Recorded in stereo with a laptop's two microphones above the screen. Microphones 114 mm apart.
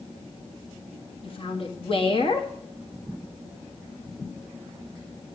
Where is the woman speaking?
50° left (ahead or behind), 1.8 m.